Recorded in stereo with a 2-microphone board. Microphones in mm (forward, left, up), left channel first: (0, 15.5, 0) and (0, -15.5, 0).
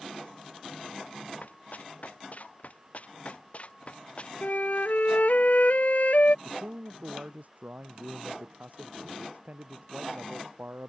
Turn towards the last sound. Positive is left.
turn(degrees=-55)  # may be behind; listen again after turning